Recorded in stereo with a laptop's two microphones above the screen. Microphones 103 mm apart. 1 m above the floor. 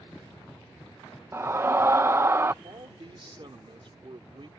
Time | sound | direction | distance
1.3 | a scream | 25° right (ahead or behind) | ?
2.6 | a man speaking | 55° right (ahead or behind) | ?